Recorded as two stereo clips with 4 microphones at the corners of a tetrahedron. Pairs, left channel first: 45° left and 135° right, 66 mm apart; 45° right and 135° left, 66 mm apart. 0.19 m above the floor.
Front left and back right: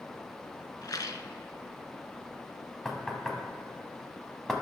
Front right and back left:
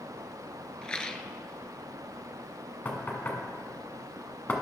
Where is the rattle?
30° left, 0.6 m.